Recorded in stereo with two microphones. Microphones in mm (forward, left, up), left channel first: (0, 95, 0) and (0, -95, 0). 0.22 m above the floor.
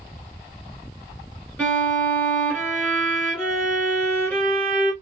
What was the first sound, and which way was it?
A violin, 5° left (ahead or behind).